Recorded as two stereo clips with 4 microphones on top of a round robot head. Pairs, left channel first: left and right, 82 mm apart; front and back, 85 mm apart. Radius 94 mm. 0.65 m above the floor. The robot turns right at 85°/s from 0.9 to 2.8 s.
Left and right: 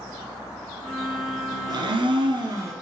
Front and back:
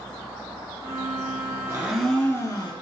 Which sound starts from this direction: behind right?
A blender, at 1.7 s.